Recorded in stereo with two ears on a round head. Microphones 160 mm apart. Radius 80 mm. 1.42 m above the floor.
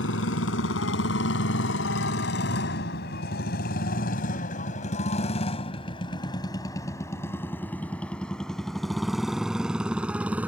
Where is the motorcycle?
80° left; by 10.5 s 10° right (ahead or behind).